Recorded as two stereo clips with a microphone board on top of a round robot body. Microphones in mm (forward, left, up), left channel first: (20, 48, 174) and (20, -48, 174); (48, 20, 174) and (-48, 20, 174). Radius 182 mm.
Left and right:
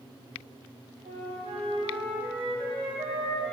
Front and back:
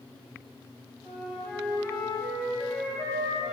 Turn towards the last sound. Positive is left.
turn(degrees=-100)